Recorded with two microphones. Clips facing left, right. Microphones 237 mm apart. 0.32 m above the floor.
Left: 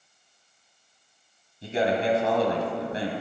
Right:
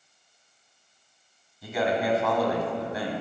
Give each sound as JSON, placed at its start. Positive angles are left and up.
{"t": 1.6, "sound": "a man speaking", "side_deg": 30, "distance_m": 1.7}